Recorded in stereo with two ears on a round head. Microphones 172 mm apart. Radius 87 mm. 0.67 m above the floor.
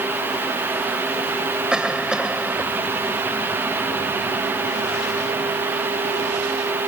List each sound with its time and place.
1.7 s a cough: 5° right (ahead or behind)